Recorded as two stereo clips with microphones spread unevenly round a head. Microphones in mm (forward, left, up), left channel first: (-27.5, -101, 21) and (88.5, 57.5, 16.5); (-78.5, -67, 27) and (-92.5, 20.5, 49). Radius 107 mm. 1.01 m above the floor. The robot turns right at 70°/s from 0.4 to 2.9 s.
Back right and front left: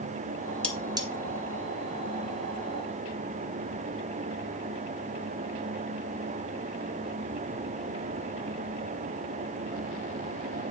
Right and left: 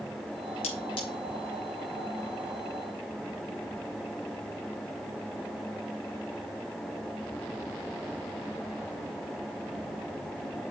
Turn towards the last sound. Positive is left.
turn(degrees=115)